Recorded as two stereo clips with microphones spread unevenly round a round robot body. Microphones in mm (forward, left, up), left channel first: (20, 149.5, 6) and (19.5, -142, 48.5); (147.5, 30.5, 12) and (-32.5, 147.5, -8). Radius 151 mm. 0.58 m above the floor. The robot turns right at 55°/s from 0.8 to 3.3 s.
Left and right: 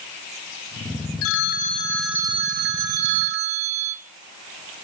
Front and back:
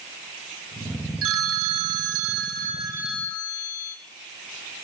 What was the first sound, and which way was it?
A phone ringing, 135° left.